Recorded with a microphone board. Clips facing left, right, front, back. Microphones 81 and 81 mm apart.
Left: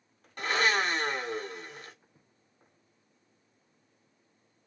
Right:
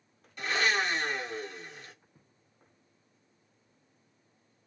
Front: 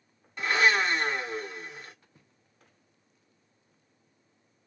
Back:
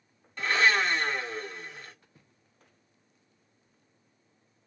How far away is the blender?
About 1.6 m.